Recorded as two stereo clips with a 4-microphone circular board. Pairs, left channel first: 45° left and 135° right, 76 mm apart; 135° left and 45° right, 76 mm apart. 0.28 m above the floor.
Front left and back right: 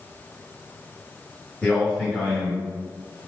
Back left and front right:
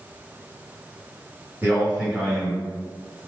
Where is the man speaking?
20° right, 1.3 m; by 3.3 s 120° left, 1.3 m.